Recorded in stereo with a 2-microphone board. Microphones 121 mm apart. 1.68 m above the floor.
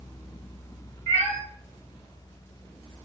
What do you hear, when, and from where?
1.1 s a cat meowing: 20° left (ahead or behind), 2.5 m